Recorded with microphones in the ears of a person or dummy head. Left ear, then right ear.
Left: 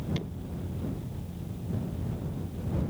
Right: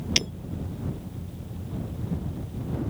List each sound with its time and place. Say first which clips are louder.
0.2 s breaking glass: right 15 dB; 70° right (ahead or behind)